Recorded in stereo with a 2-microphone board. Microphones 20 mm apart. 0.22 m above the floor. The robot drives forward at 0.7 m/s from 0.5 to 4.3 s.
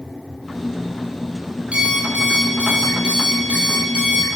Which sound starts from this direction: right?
An alarm clock, at 1.7 s.